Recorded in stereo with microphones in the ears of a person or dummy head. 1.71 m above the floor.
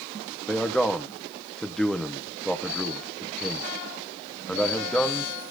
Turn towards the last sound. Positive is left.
turn(degrees=10)  # may be behind; listen again after turning